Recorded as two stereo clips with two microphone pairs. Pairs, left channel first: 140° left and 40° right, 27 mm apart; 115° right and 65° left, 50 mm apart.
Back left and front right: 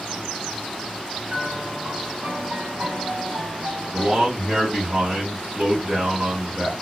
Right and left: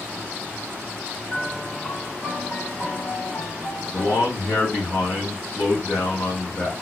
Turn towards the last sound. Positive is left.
turn(degrees=-110)